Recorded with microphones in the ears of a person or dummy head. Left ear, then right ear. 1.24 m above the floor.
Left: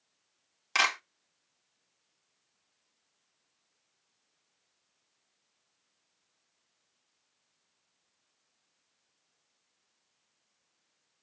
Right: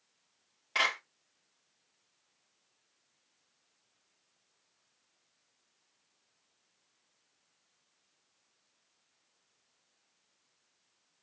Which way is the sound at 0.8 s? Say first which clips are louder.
Left 3 dB; 65° left (ahead or behind).